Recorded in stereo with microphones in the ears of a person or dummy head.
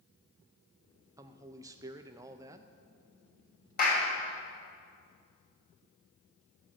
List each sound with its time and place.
1.2 s a man speaking: 15° right (ahead or behind), 0.5 m
3.8 s a clap: 50° left (ahead or behind), 3.5 m